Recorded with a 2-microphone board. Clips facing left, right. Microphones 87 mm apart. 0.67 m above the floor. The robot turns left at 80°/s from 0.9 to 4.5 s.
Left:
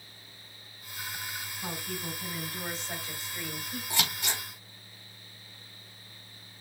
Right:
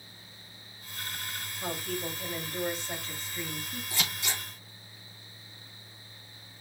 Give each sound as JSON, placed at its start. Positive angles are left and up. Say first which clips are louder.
{"t": 1.6, "sound": "a woman speaking", "louder": "right 4 dB", "azimuth_deg": -75, "distance_m": 4.5}
{"t": 3.9, "sound": "scissors", "louder": "left 2 dB", "side_deg": 80, "distance_m": 3.0}